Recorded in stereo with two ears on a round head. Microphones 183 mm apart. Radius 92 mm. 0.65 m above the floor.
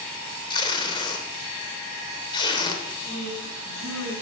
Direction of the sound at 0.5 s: 25° left (ahead or behind).